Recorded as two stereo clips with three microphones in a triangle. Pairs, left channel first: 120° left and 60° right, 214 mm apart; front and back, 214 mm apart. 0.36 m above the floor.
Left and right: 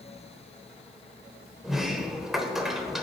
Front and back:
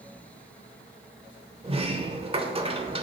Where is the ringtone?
No ringtone in this recording.